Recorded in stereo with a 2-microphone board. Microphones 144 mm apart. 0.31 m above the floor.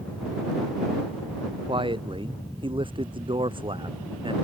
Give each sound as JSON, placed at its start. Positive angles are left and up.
{"t": 1.7, "sound": "a man speaking", "side_deg": -35}